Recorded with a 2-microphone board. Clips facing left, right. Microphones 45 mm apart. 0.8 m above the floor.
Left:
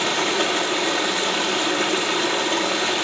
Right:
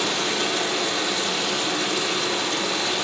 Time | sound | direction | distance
0.0 | running water | 45° left (ahead or behind) | 1.4 m